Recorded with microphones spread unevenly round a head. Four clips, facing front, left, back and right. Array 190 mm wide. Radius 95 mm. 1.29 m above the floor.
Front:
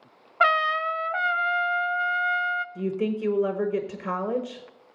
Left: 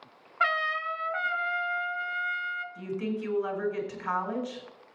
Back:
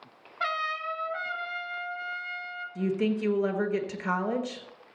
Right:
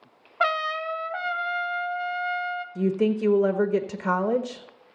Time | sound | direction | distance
0.4 | a trumpet | 40° right | 0.6 m
2.8 | a woman speaking | 80° right | 1.0 m